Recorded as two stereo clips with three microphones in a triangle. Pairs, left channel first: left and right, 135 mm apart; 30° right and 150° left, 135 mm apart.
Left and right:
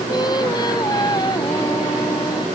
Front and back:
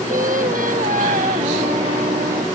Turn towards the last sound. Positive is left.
turn(degrees=150)